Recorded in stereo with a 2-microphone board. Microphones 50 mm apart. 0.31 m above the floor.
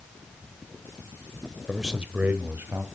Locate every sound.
1.7 s a man speaking: centre (ahead or behind), 1.1 m; by 2.9 s 50° right (ahead or behind), 1.7 m